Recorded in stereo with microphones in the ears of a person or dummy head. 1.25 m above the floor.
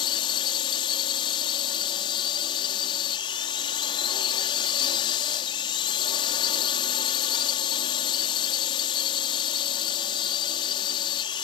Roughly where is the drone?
Left.